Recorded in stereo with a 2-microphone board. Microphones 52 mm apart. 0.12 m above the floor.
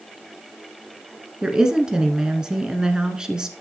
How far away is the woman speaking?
About 1.3 m.